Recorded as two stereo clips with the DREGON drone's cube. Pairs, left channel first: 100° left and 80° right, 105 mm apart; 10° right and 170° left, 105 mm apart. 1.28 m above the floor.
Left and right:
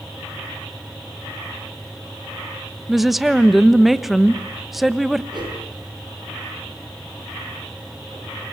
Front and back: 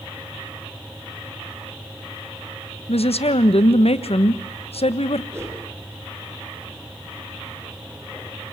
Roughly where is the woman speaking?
Ahead.